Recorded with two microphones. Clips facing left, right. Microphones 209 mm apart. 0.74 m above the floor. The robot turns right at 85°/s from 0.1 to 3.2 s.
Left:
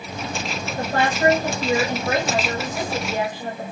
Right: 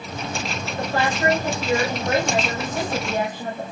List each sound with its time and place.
0.8 s a woman speaking: 60° left, 1.5 m; by 3.7 s 90° right, 1.5 m